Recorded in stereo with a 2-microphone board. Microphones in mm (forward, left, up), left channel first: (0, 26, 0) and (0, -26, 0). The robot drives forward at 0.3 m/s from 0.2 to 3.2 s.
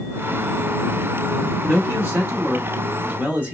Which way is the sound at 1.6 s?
35° right (ahead or behind).